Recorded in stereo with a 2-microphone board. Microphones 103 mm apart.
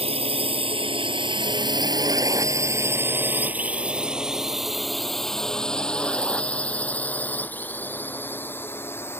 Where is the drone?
65° right (ahead or behind); by 9.2 s 20° left (ahead or behind).